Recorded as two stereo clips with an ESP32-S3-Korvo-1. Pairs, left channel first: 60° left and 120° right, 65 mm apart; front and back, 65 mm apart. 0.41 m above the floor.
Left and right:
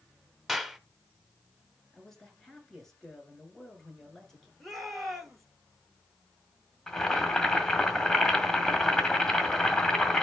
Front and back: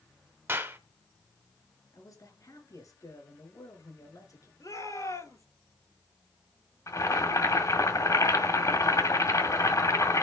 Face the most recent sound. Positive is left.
turn(degrees=-20)